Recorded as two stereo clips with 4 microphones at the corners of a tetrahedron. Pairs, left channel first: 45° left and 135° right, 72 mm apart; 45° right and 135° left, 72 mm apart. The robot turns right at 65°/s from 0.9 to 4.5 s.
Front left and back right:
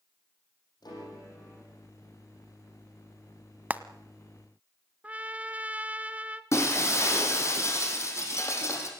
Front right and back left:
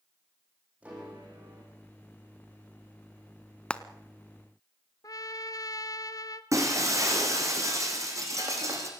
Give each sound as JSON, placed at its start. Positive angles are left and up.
{"t": 0.8, "sound": "a piano", "azimuth_deg": 65, "distance_m": 8.5}
{"t": 3.7, "sound": "frying", "azimuth_deg": -100, "distance_m": 0.7}
{"t": 5.0, "sound": "a trumpet", "azimuth_deg": -65, "distance_m": 0.8}
{"t": 6.5, "sound": "breaking glass", "azimuth_deg": 90, "distance_m": 3.5}